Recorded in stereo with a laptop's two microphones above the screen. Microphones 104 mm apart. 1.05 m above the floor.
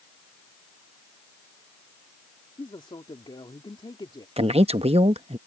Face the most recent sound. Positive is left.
turn(degrees=-75)  # may be behind; listen again after turning